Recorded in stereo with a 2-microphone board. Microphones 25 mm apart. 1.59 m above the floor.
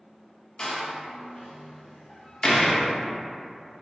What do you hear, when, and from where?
0.6 s a door slam: 35° left (ahead or behind), 0.5 m